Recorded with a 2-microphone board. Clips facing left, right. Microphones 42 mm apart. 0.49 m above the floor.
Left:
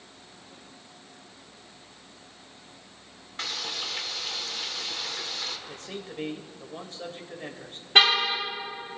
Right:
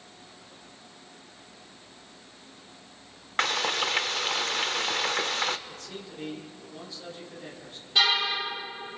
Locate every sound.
3.4 s frying: 60° right (ahead or behind), 0.5 m
5.7 s a man speaking: 55° left (ahead or behind), 1.8 m
8.0 s a car horn: 60° left (ahead or behind), 6 m